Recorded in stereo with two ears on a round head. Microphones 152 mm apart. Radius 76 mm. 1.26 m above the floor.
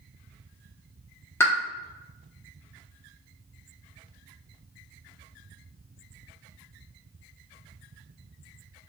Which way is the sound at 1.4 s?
15° left (ahead or behind).